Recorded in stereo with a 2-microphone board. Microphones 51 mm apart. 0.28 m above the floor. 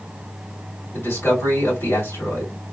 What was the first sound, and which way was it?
A man speaking, 55° left (ahead or behind).